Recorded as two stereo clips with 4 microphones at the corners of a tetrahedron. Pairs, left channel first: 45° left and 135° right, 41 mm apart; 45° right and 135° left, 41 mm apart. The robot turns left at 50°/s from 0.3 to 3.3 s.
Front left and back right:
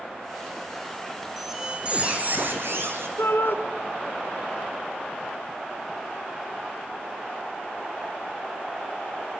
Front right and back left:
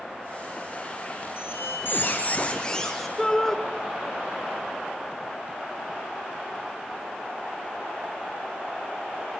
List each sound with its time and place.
1.4 s a squeak: 45° right, 3.5 m; by 3.1 s 135° right, 3.5 m
3.2 s a shout: 35° left, 2.5 m; by 3.6 s 30° left, 2.5 m